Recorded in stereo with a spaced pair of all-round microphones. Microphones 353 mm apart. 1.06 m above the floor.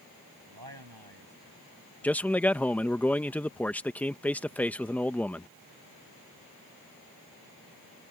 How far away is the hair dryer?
I don't hear a hair dryer.